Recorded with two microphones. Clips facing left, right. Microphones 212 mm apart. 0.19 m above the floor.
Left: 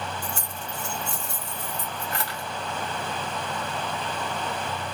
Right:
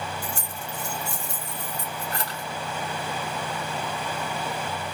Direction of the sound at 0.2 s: 35° right (ahead or behind).